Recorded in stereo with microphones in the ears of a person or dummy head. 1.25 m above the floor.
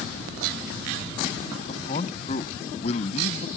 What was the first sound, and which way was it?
A man speaking, 40° left (ahead or behind).